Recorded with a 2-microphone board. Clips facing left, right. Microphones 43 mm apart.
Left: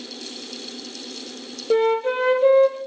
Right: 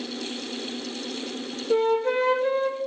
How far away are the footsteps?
I don't hear footsteps.